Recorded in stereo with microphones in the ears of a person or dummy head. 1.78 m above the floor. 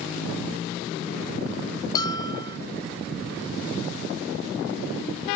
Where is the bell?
25° left (ahead or behind).